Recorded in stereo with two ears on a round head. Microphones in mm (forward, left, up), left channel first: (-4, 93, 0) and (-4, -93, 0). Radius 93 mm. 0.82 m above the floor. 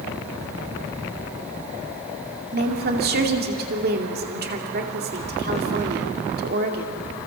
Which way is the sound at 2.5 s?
50° right (ahead or behind).